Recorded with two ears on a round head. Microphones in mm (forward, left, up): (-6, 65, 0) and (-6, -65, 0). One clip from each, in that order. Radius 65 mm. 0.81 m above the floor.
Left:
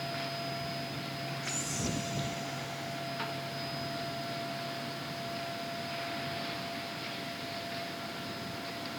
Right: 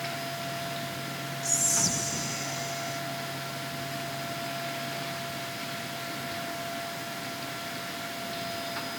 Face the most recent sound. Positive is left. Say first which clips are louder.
# right 11 dB
turn(degrees=-75)  # may be behind; listen again after turning